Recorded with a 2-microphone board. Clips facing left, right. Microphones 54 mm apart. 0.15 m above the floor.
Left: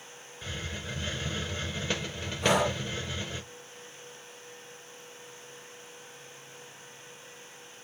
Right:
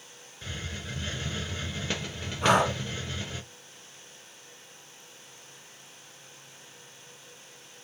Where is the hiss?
Centre (ahead or behind), 0.8 m.